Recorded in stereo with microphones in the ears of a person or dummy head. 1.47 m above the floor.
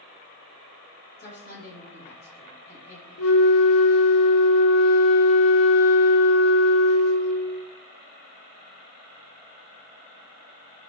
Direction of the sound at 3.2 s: 65° left (ahead or behind).